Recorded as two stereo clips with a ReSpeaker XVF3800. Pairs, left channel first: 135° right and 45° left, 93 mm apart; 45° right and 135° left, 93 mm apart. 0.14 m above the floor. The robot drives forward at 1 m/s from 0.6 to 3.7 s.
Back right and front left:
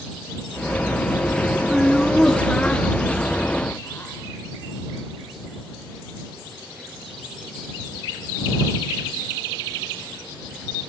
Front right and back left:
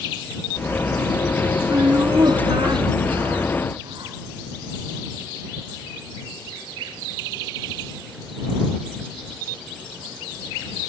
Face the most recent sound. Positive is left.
turn(degrees=155)